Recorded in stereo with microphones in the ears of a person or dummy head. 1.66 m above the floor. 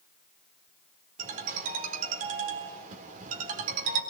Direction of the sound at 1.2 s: 50° right (ahead or behind).